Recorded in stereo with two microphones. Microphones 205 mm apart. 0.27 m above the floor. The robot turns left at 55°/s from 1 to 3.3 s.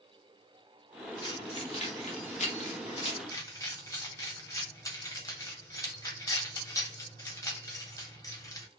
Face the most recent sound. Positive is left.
turn(degrees=20)  # may be behind; listen again after turning